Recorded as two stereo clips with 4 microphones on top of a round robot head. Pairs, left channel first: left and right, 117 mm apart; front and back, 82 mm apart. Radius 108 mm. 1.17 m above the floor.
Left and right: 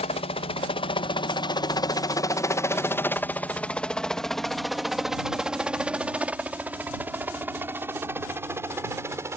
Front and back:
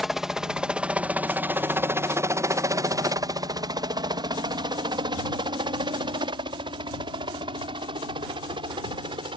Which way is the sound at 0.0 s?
95° left.